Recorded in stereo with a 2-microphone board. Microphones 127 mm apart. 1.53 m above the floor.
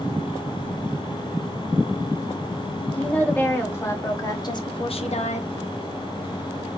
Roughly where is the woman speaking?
Centre.